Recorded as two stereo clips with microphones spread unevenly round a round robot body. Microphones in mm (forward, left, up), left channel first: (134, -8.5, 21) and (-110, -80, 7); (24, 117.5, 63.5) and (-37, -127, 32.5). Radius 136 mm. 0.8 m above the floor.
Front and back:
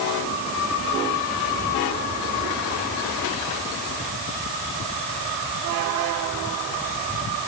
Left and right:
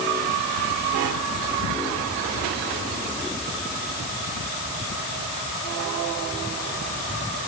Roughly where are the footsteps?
No footsteps in this recording.